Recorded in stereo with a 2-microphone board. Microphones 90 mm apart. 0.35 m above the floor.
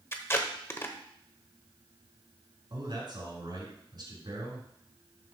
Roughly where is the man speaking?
Right.